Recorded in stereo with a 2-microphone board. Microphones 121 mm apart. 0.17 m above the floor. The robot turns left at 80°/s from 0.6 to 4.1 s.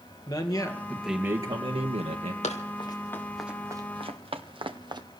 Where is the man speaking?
35° left, 2.5 m; by 2.3 s 105° right, 2.5 m.